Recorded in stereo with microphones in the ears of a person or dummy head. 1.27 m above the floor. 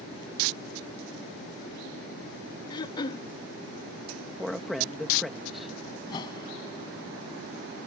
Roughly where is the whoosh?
Left.